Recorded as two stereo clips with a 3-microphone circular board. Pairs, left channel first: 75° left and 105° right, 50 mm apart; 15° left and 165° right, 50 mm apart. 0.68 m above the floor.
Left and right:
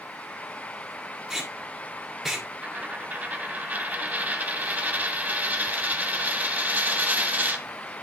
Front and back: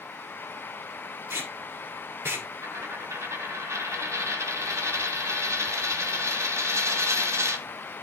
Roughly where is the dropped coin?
Behind.